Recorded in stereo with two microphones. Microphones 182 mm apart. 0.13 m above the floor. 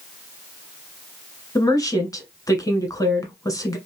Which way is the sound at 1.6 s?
20° left (ahead or behind).